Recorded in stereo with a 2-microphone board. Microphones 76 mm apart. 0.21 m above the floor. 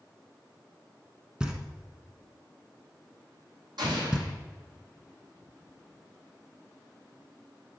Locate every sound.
1.4 s knocking: 10° right (ahead or behind), 1.3 m
3.8 s an explosion: 70° right (ahead or behind), 4 m